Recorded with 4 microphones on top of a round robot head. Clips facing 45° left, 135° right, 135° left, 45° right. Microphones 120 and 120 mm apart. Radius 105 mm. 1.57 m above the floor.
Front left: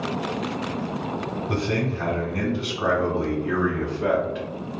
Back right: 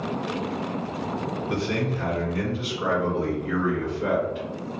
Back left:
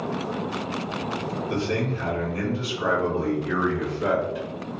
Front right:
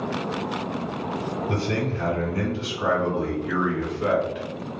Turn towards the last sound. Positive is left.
turn(degrees=60)